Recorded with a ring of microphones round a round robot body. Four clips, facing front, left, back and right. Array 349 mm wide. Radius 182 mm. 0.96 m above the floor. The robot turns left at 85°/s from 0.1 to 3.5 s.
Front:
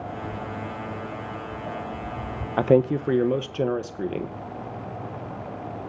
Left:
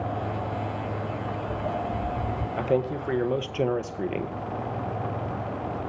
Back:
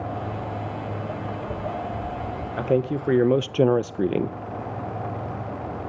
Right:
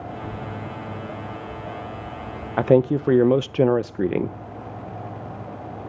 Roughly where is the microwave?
I don't hear a microwave.